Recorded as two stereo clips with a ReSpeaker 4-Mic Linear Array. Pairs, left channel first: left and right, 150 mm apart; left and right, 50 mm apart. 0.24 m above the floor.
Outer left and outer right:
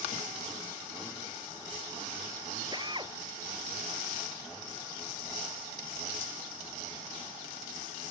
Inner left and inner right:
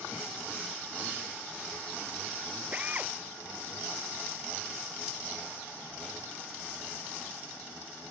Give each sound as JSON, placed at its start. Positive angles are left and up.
{"t": 2.7, "sound": "a drill", "side_deg": -30}